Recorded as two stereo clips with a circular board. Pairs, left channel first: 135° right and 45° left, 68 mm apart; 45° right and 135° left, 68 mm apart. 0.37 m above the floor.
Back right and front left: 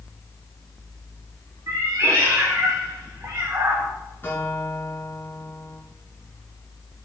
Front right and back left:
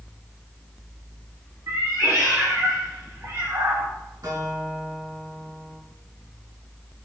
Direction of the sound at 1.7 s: 85° left.